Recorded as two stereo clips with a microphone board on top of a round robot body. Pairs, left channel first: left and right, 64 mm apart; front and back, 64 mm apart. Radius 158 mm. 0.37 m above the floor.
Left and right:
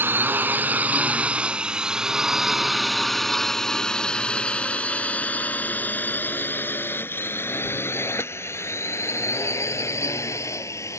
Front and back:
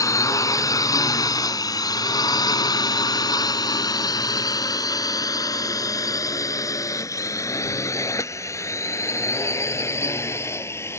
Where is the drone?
30° right; by 11.0 s 50° left.